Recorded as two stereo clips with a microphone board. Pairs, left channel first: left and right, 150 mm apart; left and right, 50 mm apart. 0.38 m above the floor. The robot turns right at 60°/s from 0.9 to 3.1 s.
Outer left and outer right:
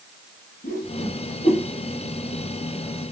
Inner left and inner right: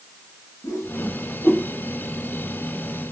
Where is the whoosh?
80° left, 1.1 m; by 1.6 s 50° left (ahead or behind), 1.1 m.